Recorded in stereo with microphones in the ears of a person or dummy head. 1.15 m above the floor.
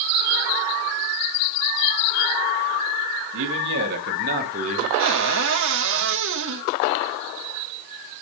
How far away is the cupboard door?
About 1.2 m.